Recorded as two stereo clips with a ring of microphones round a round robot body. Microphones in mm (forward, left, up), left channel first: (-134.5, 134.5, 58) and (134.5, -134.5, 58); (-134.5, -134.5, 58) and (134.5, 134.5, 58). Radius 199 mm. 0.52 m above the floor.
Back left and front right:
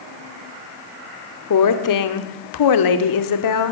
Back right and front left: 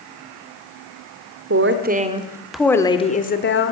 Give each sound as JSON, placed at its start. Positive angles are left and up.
{"t": 1.5, "sound": "a woman speaking", "azimuth_deg": 95, "distance_m": 2.0}